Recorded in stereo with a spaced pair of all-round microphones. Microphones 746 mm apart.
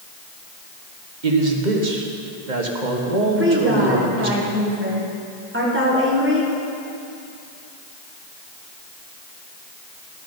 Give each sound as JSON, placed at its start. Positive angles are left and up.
{"t": 1.2, "sound": "a man speaking", "side_deg": -75, "distance_m": 1.5}
{"t": 3.4, "sound": "a woman speaking", "side_deg": -15, "distance_m": 2.0}